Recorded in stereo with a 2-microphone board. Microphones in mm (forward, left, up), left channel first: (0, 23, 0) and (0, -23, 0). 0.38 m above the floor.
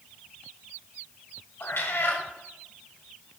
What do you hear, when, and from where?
1.6 s a cat meowing: 60° left (ahead or behind), 1.1 m